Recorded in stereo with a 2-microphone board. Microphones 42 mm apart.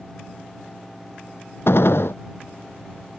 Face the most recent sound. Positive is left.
turn(degrees=75)  # may be behind; listen again after turning